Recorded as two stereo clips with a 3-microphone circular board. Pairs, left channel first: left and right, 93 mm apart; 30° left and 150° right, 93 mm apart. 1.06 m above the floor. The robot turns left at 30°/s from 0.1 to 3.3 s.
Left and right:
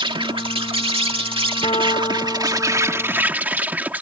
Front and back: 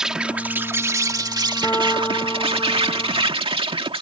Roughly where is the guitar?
Left.